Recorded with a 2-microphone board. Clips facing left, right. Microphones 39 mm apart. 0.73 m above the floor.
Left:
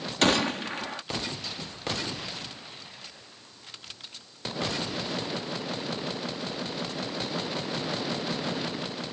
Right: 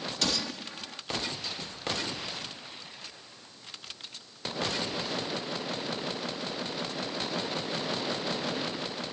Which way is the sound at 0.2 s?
50° left (ahead or behind).